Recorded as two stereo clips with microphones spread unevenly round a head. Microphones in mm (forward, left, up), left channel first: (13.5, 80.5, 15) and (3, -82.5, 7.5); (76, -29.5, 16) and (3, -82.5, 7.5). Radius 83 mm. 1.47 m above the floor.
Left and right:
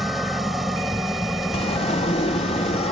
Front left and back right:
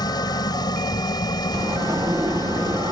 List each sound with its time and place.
0.0 s an engine running: 5° right
1.5 s a sliding door: 140° left